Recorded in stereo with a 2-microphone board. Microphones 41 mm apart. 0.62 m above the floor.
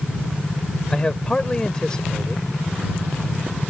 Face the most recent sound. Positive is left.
turn(degrees=20)  # may be behind; listen again after turning